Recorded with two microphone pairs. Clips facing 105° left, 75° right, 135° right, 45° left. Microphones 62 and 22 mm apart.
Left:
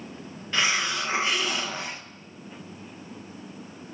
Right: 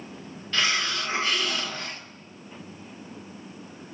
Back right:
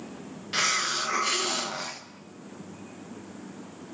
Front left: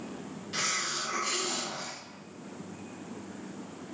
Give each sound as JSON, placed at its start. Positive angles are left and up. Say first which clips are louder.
{"t": 0.5, "sound": "a hiss", "louder": "left 1 dB, back right 6 dB", "azimuth_deg": 175, "distance_m": 0.7}